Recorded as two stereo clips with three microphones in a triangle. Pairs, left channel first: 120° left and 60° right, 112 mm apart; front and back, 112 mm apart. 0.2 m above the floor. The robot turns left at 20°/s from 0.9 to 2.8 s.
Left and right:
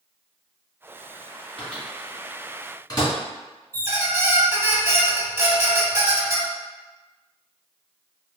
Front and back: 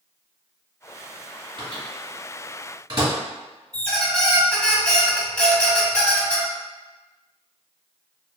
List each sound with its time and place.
1.6 s a microwave: 170° right, 1.4 m; by 3.1 s 165° left, 1.4 m
3.7 s a squeak: 60° right, 0.7 m